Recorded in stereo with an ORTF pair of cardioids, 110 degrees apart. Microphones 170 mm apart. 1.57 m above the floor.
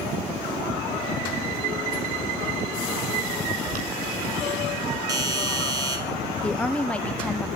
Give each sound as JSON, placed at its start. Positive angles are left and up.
{"t": 3.7, "sound": "boiling", "azimuth_deg": -60, "distance_m": 7.0}
{"t": 5.1, "sound": "a doorbell", "azimuth_deg": -25, "distance_m": 5.0}
{"t": 6.4, "sound": "a woman speaking", "azimuth_deg": 5, "distance_m": 1.1}